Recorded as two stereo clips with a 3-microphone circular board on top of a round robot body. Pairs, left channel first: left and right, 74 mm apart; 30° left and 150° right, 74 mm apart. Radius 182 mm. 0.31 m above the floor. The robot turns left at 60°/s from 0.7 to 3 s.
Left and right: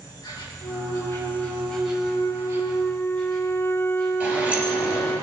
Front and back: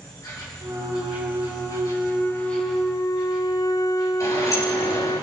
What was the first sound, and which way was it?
An insect, 65° left.